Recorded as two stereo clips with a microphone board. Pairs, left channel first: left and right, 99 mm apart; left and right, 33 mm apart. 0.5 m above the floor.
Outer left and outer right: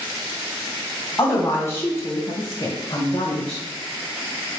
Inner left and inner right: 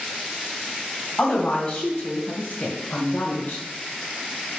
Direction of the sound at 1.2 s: 25° left (ahead or behind).